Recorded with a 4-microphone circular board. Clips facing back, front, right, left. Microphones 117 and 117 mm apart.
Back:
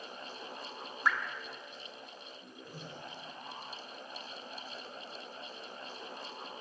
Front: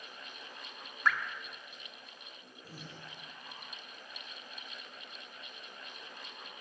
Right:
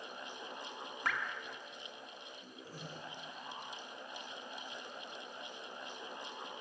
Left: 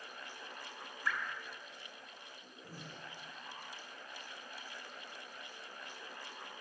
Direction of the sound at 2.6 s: 60° left.